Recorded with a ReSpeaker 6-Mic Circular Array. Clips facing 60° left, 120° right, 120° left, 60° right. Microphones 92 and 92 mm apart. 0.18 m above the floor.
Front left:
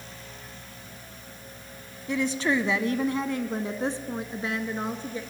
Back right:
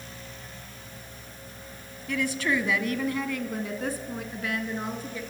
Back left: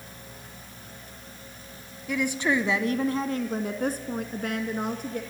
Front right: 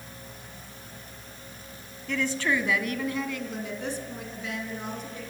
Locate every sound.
2.1 s a woman speaking: 50° left, 1.1 m; by 5.2 s 120° left, 2 m